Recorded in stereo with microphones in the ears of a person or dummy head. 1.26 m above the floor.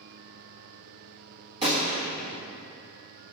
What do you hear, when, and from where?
1.6 s a gunshot: 25° right (ahead or behind), 1.5 m